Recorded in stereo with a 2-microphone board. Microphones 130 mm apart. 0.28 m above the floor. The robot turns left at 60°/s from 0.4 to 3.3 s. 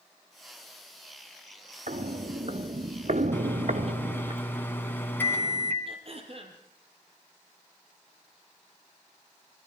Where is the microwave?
15° left (ahead or behind), 1.9 m.